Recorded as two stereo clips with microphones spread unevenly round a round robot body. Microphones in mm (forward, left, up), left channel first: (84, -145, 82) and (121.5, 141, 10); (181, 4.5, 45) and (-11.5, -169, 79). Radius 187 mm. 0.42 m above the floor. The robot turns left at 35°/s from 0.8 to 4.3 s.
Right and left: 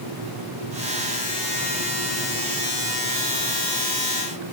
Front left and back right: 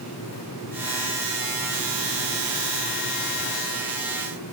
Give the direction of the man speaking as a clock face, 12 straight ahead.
I don't hear a man speaking.